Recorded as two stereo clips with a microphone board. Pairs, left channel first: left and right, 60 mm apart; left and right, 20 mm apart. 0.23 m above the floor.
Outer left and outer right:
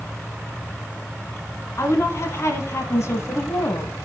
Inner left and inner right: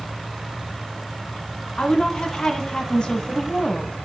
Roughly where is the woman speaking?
Left.